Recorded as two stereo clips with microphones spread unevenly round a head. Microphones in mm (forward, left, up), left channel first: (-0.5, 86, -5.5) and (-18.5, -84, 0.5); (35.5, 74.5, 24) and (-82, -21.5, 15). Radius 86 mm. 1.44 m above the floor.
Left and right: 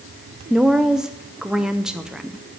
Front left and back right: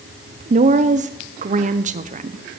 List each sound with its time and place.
0.5 s a woman speaking: 175° left, 0.6 m